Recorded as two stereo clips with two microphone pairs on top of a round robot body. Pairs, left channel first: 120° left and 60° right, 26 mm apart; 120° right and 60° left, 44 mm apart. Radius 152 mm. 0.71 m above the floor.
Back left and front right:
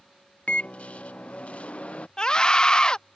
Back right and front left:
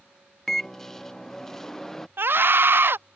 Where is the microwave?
160° left.